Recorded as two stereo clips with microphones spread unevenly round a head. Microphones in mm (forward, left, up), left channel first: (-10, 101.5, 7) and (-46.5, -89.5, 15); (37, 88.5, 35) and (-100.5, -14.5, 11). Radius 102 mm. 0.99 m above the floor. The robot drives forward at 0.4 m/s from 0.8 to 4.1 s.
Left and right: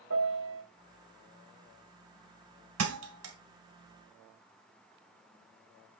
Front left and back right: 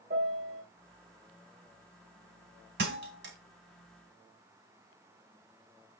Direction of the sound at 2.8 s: 100° right.